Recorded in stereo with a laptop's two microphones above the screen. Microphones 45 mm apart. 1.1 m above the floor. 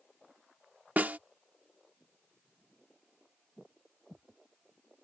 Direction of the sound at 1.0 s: 40° right (ahead or behind).